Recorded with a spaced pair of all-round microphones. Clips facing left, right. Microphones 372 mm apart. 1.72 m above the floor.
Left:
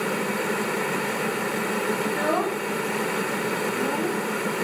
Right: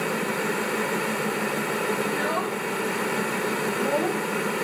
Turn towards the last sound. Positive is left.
turn(degrees=20)  # may be behind; listen again after turning